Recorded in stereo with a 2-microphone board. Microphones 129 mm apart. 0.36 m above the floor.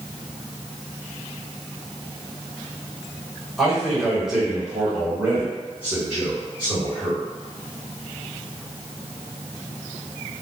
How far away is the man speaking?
About 1.7 m.